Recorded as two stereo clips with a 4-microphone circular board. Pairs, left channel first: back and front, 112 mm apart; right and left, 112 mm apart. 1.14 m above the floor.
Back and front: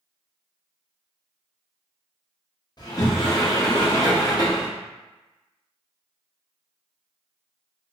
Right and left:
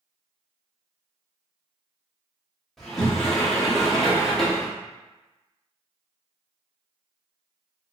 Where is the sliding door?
175° right, 0.7 m.